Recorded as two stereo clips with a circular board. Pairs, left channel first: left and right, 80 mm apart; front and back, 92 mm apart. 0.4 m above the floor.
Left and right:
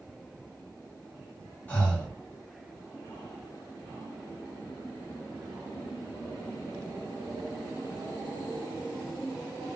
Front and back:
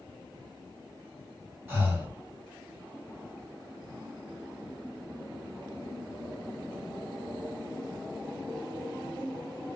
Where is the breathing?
140° left, 1.5 m.